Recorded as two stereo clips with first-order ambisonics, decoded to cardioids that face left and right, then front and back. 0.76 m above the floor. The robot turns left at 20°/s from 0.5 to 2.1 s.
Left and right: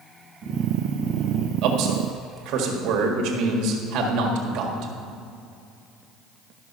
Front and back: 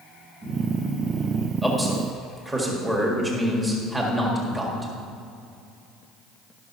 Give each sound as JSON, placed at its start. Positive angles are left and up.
{"t": 1.6, "sound": "a man speaking", "azimuth_deg": -90, "distance_m": 1.7}